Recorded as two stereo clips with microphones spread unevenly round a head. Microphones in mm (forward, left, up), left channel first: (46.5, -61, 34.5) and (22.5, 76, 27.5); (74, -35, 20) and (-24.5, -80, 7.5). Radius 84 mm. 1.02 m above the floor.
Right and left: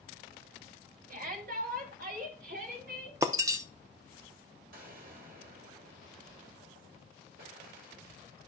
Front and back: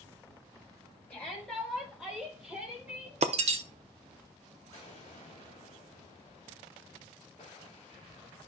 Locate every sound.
1.1 s a shout: 110° left, 2 m; by 3.1 s 125° left, 3.5 m
3.2 s breaking glass: 170° left, 0.6 m
4.7 s an explosion: 85° left, 3 m